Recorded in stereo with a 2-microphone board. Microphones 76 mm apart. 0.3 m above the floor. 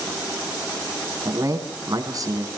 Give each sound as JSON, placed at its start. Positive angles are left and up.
{"t": 1.2, "sound": "a man speaking", "side_deg": -50, "distance_m": 3.0}